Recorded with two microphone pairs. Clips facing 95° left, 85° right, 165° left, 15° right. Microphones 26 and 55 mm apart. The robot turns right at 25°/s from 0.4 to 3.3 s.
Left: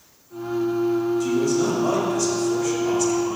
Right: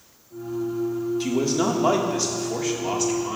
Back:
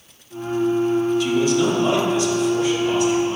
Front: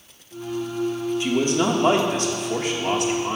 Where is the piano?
No piano in this recording.